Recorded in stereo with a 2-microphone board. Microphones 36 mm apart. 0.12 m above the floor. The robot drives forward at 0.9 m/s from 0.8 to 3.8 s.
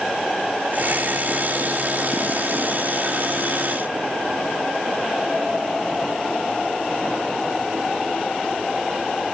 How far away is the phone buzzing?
No phone buzzing in this recording.